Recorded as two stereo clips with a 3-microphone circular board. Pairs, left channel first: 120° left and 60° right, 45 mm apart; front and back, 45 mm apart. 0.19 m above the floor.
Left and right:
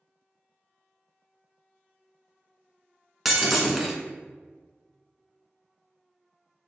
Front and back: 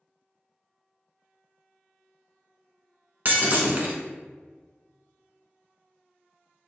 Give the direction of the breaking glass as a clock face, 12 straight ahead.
5 o'clock.